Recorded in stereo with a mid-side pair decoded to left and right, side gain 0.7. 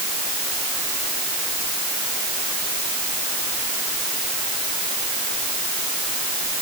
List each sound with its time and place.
Only background noise.